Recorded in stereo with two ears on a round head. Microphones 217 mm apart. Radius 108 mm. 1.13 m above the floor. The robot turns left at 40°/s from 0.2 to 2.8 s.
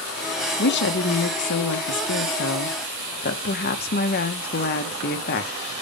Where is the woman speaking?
135° left, 1.0 m; by 5.5 s 45° left, 1.0 m.